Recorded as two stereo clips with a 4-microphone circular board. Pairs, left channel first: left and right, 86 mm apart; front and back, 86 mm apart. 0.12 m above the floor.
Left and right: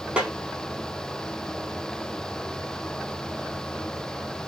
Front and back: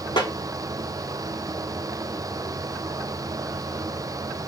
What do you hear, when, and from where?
0.2 s a snare drum: 15° right, 1.1 m